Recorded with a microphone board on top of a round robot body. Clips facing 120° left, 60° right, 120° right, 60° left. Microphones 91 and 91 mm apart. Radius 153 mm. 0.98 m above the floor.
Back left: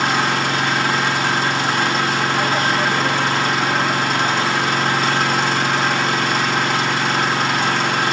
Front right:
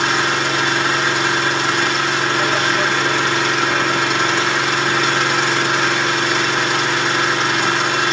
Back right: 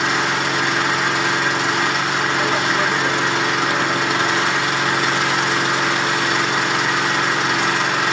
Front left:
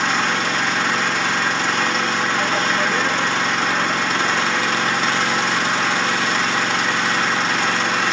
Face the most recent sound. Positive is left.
turn(degrees=160)